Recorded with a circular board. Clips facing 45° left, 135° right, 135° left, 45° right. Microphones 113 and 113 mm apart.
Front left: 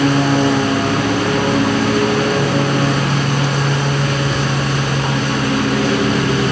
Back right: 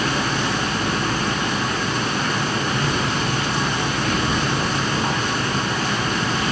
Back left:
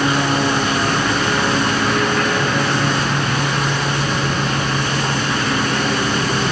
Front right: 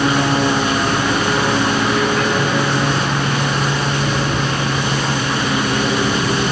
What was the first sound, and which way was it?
A lawn mower, 35° left.